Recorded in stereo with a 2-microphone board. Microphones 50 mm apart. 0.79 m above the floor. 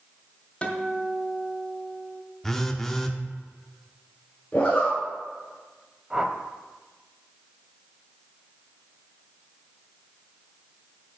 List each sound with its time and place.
0.6 s a guitar: 20° left (ahead or behind), 1.2 m
2.4 s a phone buzzing: 10° left (ahead or behind), 0.6 m
4.5 s a zipper: 25° left (ahead or behind), 2.5 m
6.1 s a whoosh: 20° right (ahead or behind), 0.6 m